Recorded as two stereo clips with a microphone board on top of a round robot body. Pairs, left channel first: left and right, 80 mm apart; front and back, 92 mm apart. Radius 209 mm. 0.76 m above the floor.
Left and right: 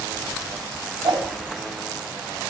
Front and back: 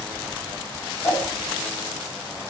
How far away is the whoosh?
About 5.5 m.